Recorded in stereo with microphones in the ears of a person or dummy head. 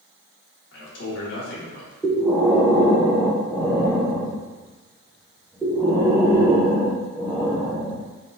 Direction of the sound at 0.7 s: 75° left (ahead or behind).